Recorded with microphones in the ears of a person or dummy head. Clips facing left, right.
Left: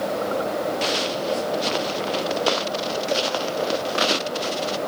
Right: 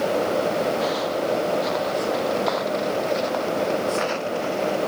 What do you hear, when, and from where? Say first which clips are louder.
0.8 s footsteps: right 2 dB; 40° left (ahead or behind); by 4.8 s 55° left (ahead or behind)